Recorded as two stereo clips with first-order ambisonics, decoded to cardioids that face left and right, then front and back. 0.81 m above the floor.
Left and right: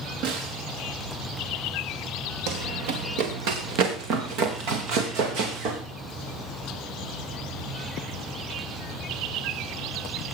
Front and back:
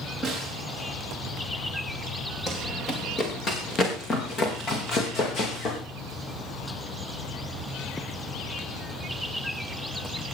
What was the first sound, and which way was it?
A snare drum, 90° right.